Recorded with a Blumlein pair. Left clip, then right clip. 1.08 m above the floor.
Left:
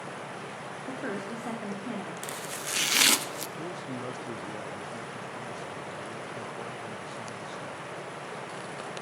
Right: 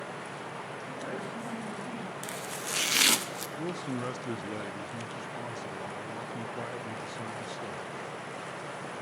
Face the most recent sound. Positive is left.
turn(degrees=-15)